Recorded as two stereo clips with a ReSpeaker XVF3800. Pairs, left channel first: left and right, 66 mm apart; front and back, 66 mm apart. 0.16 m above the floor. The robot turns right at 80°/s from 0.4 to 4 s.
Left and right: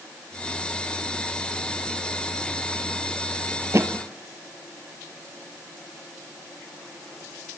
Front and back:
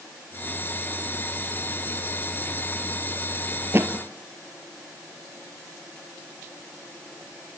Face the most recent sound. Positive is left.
turn(degrees=-115)